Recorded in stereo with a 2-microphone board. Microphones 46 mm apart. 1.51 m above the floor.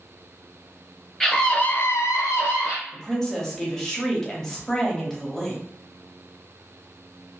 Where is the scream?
10° left (ahead or behind), 0.9 m; by 2.8 s 55° left (ahead or behind), 1.0 m.